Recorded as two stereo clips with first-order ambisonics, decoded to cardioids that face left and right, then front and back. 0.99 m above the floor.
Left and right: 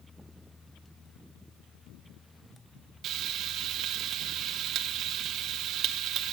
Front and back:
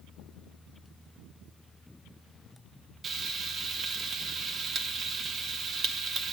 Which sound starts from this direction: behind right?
Frying, at 3.0 s.